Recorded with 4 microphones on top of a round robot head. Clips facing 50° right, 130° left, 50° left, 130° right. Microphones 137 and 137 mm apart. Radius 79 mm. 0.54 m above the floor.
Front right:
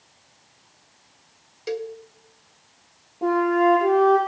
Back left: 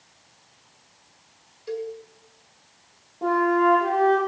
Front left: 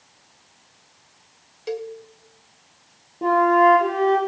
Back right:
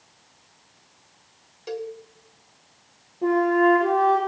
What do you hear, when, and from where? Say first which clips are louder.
1.7 s a cowbell: front right 2 dB, front left 2 dB; 40° right, 0.6 m
3.2 s a flute: front right 1 dB, front left 3 dB; 35° left, 9 m